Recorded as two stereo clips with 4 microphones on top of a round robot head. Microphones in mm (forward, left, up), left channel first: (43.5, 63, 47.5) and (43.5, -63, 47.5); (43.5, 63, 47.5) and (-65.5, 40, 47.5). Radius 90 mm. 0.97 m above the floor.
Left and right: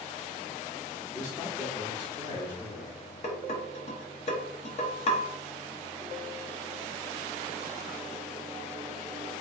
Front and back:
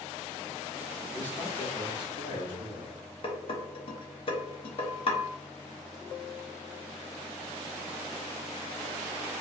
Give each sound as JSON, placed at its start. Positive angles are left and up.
{"t": 1.1, "sound": "a man speaking", "azimuth_deg": 80, "distance_m": 1.4}
{"t": 3.2, "sound": "dishes clattering", "azimuth_deg": 50, "distance_m": 0.9}